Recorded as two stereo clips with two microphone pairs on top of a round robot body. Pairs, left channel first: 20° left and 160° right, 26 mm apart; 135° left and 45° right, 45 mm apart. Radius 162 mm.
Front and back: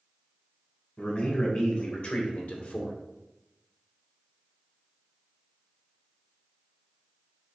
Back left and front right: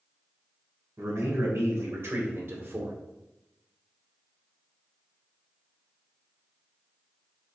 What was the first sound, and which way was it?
A man speaking, 25° right.